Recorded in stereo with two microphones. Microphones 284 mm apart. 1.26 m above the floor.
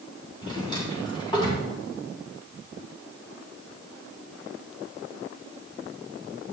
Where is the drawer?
15° left (ahead or behind), 3 m.